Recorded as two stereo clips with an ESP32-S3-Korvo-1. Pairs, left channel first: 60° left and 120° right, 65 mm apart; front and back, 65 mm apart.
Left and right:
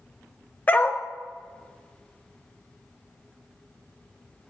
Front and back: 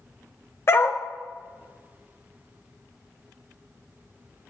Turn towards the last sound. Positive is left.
turn(degrees=10)